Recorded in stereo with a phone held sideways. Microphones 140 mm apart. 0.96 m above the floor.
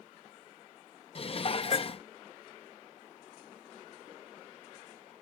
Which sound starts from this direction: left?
Dishes clattering, at 1.1 s.